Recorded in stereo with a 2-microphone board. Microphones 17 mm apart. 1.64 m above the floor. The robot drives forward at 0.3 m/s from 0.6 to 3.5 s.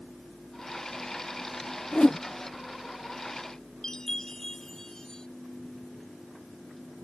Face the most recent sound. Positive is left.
turn(degrees=30)  # may be behind; listen again after turning